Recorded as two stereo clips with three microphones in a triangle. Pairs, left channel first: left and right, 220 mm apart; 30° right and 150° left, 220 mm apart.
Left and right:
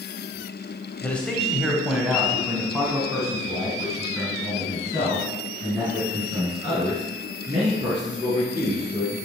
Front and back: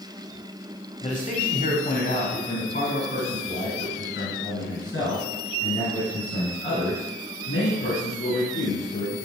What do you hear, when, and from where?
1.0 s a man speaking: 10° left, 1.2 m; by 9.2 s 25° right, 5.5 m